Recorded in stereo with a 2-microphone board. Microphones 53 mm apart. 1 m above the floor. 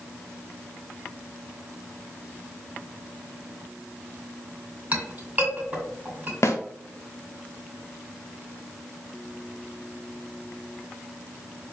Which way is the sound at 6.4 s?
60° left (ahead or behind).